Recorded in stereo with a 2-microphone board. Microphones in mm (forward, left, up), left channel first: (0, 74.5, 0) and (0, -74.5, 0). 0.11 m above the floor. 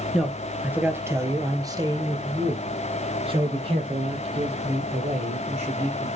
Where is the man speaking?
Centre (ahead or behind), 1.7 m; by 6.1 s 45° right (ahead or behind), 4.5 m.